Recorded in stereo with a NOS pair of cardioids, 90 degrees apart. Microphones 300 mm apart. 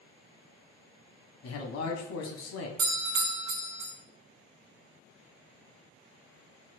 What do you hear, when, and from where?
1.4 s a man speaking: 55° left, 0.8 m
2.8 s a doorbell: 60° right, 1.1 m